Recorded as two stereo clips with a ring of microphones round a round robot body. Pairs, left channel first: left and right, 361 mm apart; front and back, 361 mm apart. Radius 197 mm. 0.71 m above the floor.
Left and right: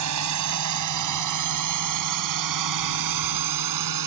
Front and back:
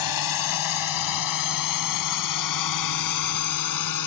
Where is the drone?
40° right; by 4.1 s 45° right.